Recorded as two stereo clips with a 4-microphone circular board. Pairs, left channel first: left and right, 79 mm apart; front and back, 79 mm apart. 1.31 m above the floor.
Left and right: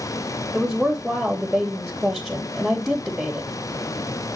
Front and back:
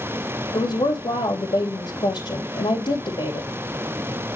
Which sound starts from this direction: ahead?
A woman speaking, at 0.5 s.